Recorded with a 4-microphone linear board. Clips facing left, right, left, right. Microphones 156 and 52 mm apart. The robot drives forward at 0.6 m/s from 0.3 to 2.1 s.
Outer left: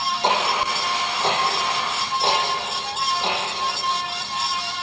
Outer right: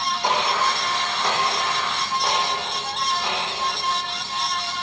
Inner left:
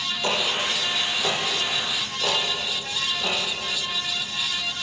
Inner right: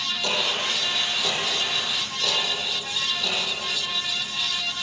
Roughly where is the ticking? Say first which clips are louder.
Even, inner left 2 dB; left.